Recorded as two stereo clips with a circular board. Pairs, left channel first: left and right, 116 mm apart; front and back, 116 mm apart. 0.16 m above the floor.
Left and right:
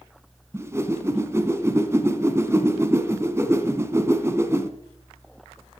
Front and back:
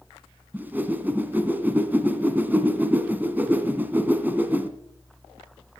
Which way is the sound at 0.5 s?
125° right.